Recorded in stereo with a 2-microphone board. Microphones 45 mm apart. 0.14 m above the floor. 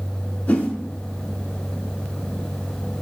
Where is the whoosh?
35° left (ahead or behind), 0.7 m.